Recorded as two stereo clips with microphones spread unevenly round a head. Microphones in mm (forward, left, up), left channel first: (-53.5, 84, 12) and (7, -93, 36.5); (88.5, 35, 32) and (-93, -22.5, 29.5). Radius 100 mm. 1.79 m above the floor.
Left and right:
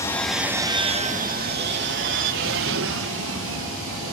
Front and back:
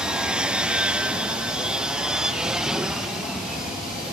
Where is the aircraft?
120° left; by 4.2 s 75° right.